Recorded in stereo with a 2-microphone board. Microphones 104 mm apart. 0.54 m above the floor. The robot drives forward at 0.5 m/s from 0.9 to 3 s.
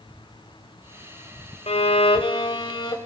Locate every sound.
1.7 s a violin: 70° left (ahead or behind), 0.9 m; by 3.0 s 40° left (ahead or behind), 1.2 m